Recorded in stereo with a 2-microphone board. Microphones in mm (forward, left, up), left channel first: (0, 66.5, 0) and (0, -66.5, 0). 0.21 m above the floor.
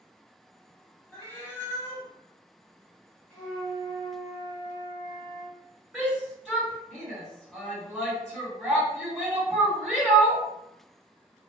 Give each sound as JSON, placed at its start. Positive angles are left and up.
{"t": 1.1, "sound": "a cat meowing", "side_deg": 20, "distance_m": 0.7}
{"t": 3.3, "sound": "a flute", "side_deg": 5, "distance_m": 1.9}
{"t": 5.9, "sound": "a shout", "side_deg": -15, "distance_m": 2.0}